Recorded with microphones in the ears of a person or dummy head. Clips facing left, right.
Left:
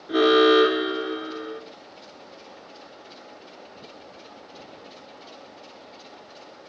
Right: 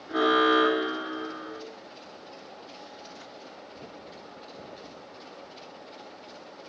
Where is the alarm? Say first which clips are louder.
Left 7 dB; 45° left (ahead or behind), 3 m.